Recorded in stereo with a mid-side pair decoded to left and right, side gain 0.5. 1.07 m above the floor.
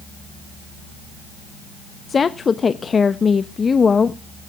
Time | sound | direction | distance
2.1 | a woman speaking | 35° left | 0.9 m